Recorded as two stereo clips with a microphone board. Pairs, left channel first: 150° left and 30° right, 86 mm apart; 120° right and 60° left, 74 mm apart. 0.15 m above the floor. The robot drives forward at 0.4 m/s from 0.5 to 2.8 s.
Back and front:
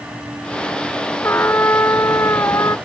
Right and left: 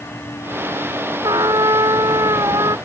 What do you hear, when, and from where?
1.2 s a trumpet: 85° left; by 2.8 s 95° left